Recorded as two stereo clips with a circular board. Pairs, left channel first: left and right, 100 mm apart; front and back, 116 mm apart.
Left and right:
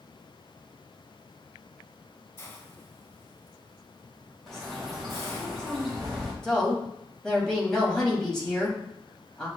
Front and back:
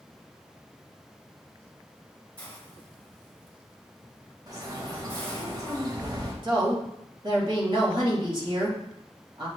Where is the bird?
175° left, 1.2 m.